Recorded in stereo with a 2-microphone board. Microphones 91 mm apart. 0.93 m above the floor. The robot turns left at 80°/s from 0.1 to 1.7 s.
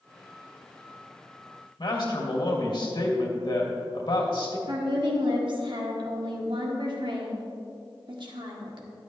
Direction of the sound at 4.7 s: 65° right (ahead or behind).